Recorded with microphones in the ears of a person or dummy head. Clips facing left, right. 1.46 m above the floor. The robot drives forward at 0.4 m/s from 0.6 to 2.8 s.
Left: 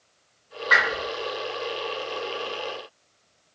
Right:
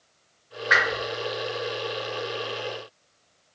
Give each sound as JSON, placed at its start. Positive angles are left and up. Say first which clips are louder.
{"t": 0.7, "sound": "a whoosh", "louder": "even", "side_deg": -20, "distance_m": 1.5}